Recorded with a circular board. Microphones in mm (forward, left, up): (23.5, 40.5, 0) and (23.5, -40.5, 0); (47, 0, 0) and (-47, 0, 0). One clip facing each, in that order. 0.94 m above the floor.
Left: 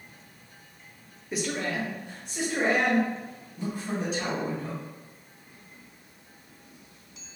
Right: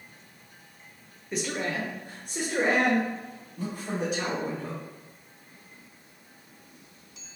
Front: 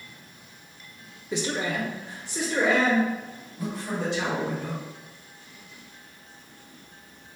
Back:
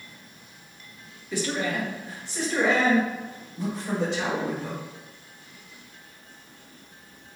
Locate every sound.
1.3 s a man speaking: 15° left, 0.7 m; by 4.8 s 85° right, 3.5 m